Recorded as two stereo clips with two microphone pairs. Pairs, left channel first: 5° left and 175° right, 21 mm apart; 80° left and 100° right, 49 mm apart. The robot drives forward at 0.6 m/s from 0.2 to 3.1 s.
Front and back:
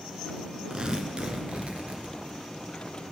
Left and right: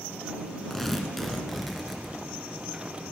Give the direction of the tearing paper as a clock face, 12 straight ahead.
7 o'clock.